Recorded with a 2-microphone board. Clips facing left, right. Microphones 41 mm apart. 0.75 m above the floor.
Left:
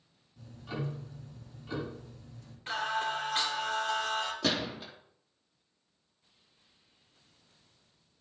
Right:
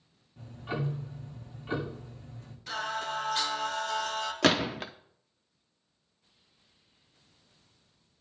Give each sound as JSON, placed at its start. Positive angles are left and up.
{"t": 0.4, "sound": "ticking", "side_deg": -35, "distance_m": 1.6}
{"t": 2.7, "sound": "singing", "side_deg": 35, "distance_m": 2.5}
{"t": 4.4, "sound": "a gunshot", "side_deg": -70, "distance_m": 0.6}